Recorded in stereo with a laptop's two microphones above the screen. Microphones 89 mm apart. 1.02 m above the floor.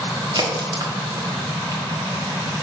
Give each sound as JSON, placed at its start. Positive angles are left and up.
{"t": 0.3, "sound": "a crack", "side_deg": -50, "distance_m": 1.3}